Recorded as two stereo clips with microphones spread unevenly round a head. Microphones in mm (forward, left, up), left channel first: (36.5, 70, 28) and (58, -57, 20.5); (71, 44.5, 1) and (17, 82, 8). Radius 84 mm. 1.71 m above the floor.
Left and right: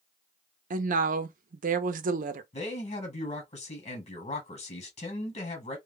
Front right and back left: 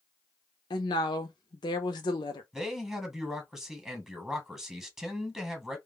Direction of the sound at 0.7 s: 60° right.